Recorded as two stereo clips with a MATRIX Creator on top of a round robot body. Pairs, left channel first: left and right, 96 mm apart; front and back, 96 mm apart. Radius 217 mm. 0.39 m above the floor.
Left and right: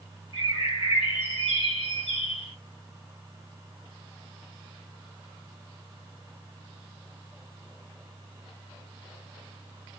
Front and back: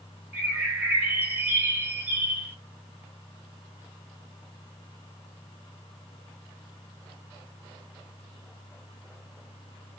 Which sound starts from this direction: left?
A bird, at 0.3 s.